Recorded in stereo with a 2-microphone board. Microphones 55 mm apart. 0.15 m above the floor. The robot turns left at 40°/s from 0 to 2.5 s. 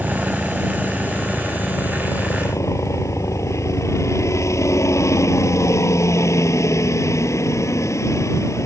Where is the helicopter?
160° right; by 8.7 s 100° left.